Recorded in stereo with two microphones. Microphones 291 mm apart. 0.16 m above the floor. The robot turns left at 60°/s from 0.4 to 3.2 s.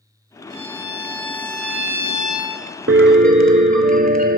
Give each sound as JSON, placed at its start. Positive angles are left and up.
{"t": 0.5, "sound": "a violin", "azimuth_deg": 110, "distance_m": 1.4}
{"t": 2.9, "sound": "a piano", "side_deg": -50, "distance_m": 0.5}